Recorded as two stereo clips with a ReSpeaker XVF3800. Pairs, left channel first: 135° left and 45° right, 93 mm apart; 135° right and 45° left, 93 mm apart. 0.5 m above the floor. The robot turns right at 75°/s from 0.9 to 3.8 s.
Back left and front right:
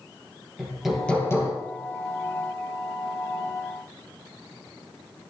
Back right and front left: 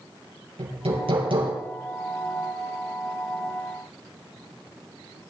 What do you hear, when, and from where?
0.6 s hammering: 40° left, 6 m; by 1.5 s 90° left, 6 m